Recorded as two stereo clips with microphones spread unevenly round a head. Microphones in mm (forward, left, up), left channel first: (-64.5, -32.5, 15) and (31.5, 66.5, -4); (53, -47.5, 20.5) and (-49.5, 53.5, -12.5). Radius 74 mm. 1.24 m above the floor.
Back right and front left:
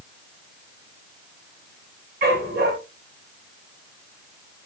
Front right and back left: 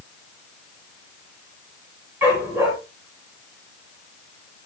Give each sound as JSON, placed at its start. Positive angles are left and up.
{"t": 2.2, "sound": "a dog barking", "azimuth_deg": 60, "distance_m": 9.5}